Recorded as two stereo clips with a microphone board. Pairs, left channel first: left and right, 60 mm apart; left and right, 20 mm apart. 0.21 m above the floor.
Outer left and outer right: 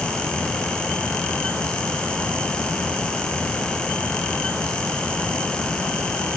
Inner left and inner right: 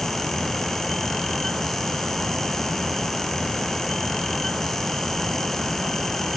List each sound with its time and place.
Only background noise.